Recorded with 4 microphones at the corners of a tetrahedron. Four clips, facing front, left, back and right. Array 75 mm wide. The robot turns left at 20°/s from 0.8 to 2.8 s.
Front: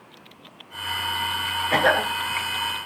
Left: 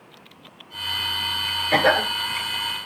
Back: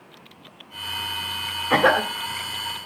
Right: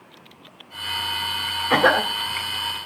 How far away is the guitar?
I don't hear a guitar.